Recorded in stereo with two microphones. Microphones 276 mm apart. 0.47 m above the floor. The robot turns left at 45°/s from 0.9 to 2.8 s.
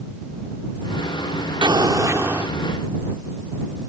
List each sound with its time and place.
1.6 s an explosion: 15° right (ahead or behind); by 2.5 s 5° right (ahead or behind)